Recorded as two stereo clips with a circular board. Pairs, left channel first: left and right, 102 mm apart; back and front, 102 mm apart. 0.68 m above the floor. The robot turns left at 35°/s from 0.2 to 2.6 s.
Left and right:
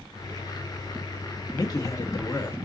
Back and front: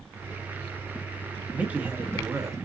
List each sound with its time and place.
1.5 s a man speaking: 70° left, 0.8 m; by 2.5 s 35° left, 0.8 m